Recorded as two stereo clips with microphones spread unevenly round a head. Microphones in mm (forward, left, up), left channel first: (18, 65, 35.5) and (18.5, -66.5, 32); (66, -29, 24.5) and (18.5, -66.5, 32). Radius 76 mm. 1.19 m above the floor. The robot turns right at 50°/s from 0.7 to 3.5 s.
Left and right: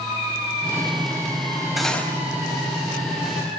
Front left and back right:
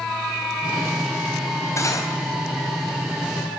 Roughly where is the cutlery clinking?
Ahead.